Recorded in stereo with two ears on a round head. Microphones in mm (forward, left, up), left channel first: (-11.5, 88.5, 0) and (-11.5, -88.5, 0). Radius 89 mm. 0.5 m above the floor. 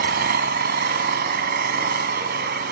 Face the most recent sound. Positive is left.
turn(degrees=-55)  # may be behind; listen again after turning